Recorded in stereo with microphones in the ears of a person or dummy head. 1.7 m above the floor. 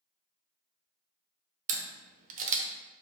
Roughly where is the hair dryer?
No hair dryer in this recording.